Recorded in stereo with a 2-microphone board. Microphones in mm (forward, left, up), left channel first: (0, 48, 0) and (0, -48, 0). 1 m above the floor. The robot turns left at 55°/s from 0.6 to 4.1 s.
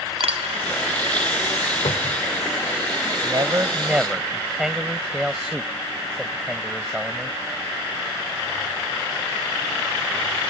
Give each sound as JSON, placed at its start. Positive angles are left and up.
{"t": 0.2, "sound": "a dropped coin", "side_deg": -80}
{"t": 1.9, "sound": "a cupboard door", "side_deg": 80}
{"t": 3.2, "sound": "a man speaking", "azimuth_deg": -125}